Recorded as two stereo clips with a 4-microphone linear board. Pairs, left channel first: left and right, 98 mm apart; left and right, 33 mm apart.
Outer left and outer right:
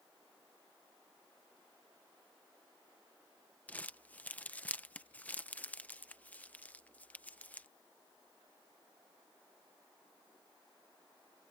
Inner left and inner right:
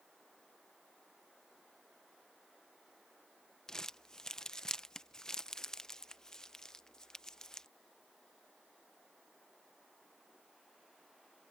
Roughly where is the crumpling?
Centre.